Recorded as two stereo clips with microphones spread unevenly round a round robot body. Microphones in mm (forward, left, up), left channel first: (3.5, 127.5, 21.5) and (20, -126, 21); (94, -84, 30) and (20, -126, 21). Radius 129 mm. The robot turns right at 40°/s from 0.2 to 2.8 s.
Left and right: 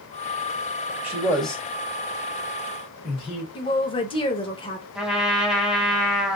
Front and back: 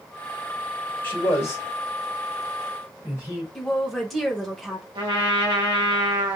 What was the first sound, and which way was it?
A man speaking, 10° right.